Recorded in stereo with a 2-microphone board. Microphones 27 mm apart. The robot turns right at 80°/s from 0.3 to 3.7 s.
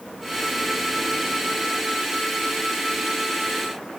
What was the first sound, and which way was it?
Only background noise.